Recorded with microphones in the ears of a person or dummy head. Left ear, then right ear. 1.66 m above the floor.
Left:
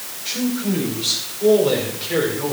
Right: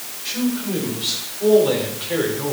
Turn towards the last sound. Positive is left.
turn(degrees=0)  # may be behind; listen again after turning